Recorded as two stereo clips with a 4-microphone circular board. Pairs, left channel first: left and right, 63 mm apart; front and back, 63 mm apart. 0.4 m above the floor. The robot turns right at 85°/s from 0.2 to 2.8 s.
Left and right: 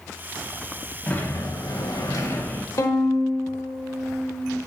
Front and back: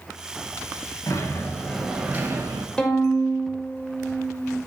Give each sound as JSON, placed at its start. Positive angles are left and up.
{"t": 1.1, "sound": "a sliding door", "azimuth_deg": 25, "distance_m": 0.8}
{"t": 2.8, "sound": "a violin", "azimuth_deg": 70, "distance_m": 0.6}